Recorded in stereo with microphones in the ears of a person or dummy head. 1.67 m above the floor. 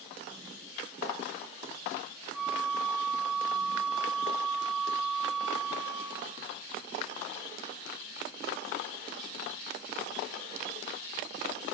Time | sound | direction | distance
2.3 | a flute | centre (ahead or behind) | 1.7 m